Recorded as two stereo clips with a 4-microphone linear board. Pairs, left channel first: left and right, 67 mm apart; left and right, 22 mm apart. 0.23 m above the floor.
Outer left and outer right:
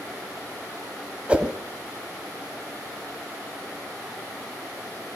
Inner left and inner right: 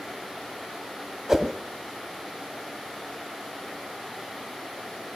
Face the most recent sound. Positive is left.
turn(degrees=-20)  # may be behind; listen again after turning